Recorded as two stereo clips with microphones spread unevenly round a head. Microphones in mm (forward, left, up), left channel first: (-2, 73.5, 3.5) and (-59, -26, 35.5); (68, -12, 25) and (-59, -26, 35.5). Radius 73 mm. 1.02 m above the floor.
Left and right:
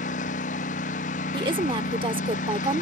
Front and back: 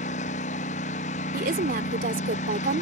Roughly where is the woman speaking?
Behind.